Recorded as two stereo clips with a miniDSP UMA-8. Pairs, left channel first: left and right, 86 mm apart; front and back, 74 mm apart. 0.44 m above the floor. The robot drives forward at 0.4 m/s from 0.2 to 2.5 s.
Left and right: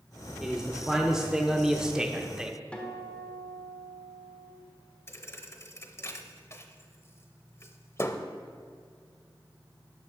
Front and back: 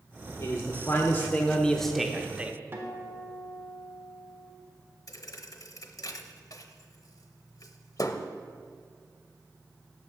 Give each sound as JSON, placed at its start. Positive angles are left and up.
{"t": 0.4, "sound": "a man speaking", "azimuth_deg": -10, "distance_m": 0.9}
{"t": 2.7, "sound": "a guitar", "azimuth_deg": 155, "distance_m": 1.3}
{"t": 5.1, "sound": "a thud", "azimuth_deg": 35, "distance_m": 0.6}